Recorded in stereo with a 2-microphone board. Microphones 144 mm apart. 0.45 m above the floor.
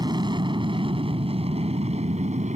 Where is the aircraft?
30° right (ahead or behind); by 2.6 s 55° right (ahead or behind).